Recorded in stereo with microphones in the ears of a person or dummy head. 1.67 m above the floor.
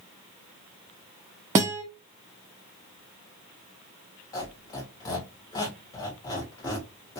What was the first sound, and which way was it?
A guitar, 15° right (ahead or behind).